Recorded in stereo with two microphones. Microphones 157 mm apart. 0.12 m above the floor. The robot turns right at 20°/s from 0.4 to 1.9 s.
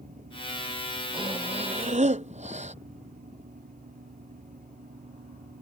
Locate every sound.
1.1 s breathing: 35° right (ahead or behind); by 2.8 s 50° right (ahead or behind)